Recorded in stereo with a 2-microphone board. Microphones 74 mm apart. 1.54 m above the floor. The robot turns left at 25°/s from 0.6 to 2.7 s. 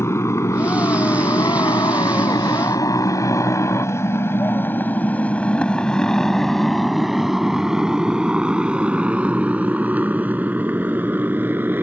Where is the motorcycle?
40° left (ahead or behind); by 11.8 s 30° right (ahead or behind).